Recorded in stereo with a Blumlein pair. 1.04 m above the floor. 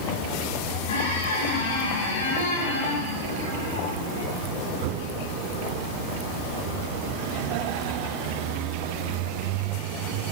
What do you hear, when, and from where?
0.9 s a squeak: 65° left, 6.5 m